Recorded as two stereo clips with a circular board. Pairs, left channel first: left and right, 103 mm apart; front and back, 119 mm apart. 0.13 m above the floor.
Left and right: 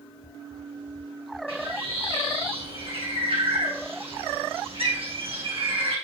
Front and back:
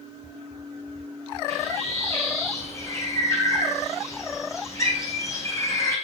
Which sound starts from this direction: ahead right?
A bird, at 1.5 s.